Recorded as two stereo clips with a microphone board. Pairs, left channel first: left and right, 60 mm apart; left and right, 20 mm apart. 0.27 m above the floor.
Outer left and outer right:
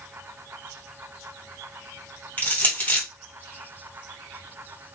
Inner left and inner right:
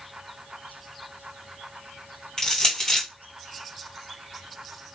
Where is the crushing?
30° left (ahead or behind), 2 m.